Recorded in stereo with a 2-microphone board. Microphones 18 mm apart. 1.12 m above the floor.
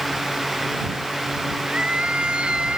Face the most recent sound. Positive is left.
turn(degrees=-90)